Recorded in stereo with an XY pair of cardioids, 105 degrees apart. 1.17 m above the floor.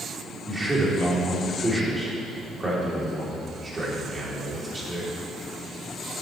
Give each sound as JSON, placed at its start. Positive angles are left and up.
{"t": 0.5, "sound": "a man speaking", "azimuth_deg": -20, "distance_m": 2.5}